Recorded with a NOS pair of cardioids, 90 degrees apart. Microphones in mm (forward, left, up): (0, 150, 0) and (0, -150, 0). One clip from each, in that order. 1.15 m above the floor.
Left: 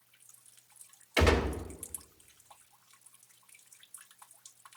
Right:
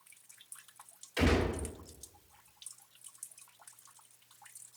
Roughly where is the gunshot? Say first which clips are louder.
Left 3 dB; ahead left.